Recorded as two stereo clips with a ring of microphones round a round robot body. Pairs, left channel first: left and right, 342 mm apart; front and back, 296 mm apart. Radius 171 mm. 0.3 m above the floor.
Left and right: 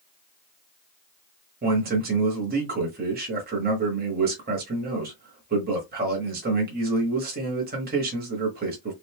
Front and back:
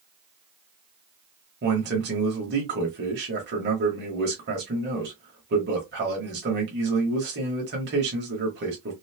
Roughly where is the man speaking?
Behind right.